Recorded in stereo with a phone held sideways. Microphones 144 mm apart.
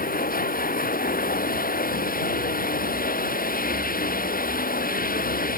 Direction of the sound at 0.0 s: 85° left.